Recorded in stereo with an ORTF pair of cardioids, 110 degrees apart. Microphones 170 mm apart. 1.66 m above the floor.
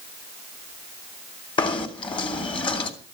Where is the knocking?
30° left, 3 m.